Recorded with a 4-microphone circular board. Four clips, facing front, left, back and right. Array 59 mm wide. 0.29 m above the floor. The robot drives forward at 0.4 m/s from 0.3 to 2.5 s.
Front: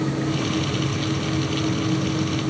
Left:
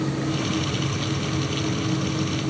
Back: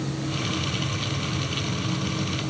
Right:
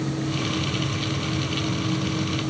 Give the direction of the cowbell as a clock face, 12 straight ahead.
No cowbell in this recording.